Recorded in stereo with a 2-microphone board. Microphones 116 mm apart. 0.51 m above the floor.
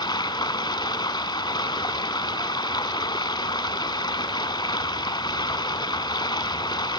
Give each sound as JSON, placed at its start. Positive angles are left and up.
{"t": 0.0, "sound": "running water", "side_deg": 40, "distance_m": 0.8}